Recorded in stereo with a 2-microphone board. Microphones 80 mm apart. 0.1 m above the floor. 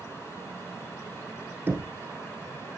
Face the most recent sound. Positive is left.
turn(degrees=-25)  # may be behind; listen again after turning